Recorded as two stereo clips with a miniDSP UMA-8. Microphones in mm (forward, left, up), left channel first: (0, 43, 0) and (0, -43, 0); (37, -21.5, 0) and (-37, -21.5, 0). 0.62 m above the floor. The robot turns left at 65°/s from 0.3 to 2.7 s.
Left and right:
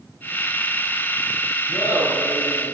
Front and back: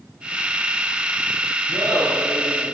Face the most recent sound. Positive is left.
turn(degrees=95)